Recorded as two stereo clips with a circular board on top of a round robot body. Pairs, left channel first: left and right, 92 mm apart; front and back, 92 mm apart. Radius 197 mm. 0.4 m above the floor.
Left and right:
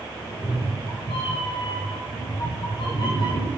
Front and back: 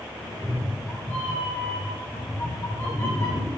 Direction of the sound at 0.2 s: 75° left.